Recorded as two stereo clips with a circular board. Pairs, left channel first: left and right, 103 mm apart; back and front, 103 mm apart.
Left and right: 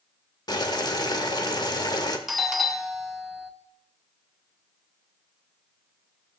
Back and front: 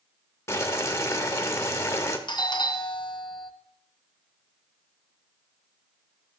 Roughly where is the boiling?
Behind left.